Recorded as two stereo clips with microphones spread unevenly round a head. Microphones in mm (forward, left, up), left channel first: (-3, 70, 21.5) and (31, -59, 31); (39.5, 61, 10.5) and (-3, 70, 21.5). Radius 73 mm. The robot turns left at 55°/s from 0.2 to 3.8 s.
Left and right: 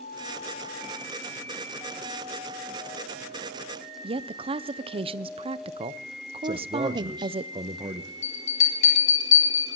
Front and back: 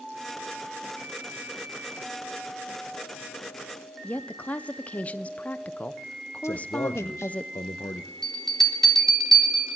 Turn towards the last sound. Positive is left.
turn(degrees=70)